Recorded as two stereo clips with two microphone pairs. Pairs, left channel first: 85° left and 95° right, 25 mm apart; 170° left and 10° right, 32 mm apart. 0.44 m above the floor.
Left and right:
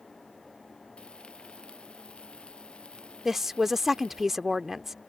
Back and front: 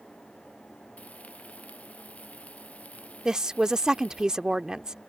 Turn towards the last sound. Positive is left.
turn(degrees=-30)